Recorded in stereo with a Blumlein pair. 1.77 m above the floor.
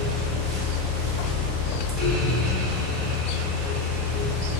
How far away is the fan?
About 1.4 m.